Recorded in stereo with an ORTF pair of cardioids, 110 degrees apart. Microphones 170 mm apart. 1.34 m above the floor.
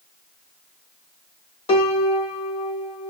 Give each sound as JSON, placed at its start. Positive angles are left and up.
{"t": 1.7, "sound": "a piano", "azimuth_deg": 35, "distance_m": 1.9}